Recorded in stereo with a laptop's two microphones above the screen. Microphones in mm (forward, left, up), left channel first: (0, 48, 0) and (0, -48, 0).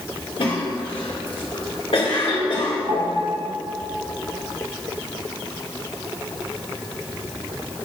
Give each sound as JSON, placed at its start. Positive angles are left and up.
{"t": 0.4, "sound": "a cough", "side_deg": 75, "distance_m": 2.5}
{"t": 2.9, "sound": "a piano", "side_deg": -75, "distance_m": 2.5}